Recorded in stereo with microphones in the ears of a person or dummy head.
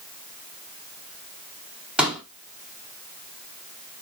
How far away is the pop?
About 1.0 m.